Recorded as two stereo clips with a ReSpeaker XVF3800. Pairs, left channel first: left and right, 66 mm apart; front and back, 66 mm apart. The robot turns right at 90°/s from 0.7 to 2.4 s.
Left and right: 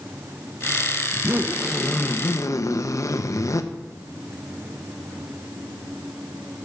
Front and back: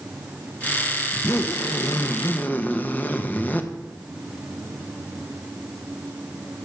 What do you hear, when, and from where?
1.1 s a zipper: 55° right, 1.0 m; by 3.6 s 60° left, 1.0 m